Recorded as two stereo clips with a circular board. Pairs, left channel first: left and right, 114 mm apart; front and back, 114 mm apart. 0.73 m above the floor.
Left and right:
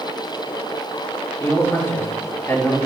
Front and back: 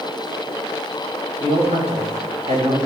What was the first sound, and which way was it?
A man speaking, 155° left.